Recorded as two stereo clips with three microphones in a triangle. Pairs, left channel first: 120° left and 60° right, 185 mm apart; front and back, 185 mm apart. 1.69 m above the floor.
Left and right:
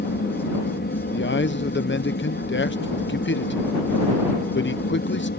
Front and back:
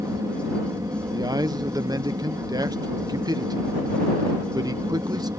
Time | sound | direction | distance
0.0 | an aircraft | 110° left | ?
1.1 | a man speaking | 110° left | ?